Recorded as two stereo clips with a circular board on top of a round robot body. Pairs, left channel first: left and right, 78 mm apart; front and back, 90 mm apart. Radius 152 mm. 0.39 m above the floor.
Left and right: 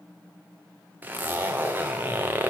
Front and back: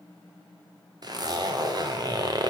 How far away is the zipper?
About 2.5 m.